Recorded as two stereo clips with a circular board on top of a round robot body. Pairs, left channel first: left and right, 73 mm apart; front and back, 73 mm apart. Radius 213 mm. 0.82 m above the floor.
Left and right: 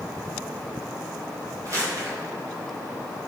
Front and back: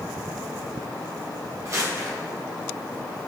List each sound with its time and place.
1.6 s crumpling: 135° right, 3 m